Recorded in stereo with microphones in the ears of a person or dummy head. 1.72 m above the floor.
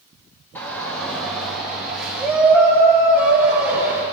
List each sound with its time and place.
0.6 s a shout: 10° left (ahead or behind), 3.5 m; by 4.0 s 5° right (ahead or behind), 7 m